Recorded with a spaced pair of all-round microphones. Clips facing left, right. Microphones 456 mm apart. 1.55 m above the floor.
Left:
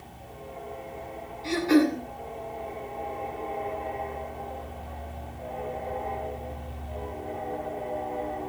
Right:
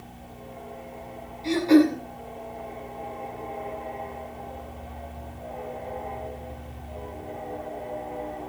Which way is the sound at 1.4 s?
30° left (ahead or behind).